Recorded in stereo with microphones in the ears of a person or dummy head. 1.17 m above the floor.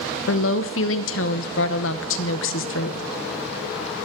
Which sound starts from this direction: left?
A woman speaking, at 0.3 s.